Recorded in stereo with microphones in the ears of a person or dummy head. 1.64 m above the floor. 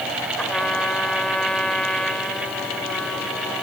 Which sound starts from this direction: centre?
A trumpet, at 0.4 s.